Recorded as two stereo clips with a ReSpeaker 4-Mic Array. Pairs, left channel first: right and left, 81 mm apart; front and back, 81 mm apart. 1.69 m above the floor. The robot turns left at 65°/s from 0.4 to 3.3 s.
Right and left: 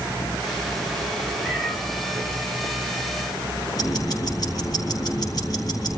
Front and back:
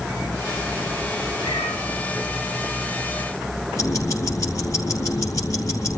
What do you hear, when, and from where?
1.4 s a cat meowing: 15° left, 5.5 m; by 1.8 s 10° right, 5.5 m
3.8 s ticking: 50° right, 3.5 m